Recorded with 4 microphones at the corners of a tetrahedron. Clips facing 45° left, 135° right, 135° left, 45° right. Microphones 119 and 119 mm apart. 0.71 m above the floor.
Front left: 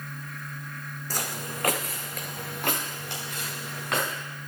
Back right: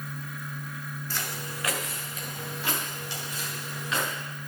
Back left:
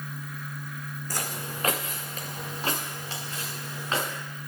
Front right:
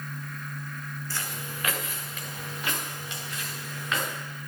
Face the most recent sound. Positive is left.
turn(degrees=75)